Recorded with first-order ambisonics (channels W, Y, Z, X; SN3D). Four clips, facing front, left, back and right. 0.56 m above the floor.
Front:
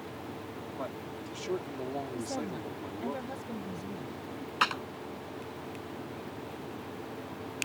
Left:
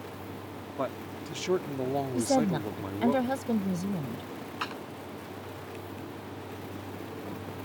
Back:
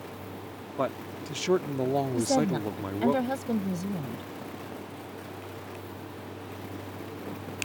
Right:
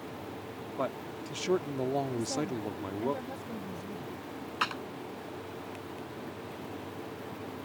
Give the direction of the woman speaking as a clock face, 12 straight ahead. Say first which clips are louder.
Left 7 dB, back 10 dB; 8 o'clock.